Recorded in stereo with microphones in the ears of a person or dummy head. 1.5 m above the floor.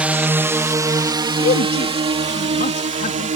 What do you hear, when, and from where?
0.0 s a drone: 10° right (ahead or behind); by 3.4 s 40° right (ahead or behind)
1.4 s a man speaking: 50° left (ahead or behind)